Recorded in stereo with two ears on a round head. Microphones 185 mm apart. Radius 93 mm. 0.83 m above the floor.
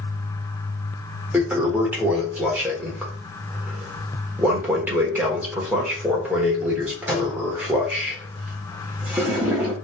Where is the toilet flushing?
5° right (ahead or behind), 0.9 m.